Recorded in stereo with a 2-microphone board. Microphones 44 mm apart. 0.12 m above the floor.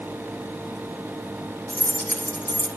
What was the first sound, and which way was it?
Keys jangling, 50° left (ahead or behind).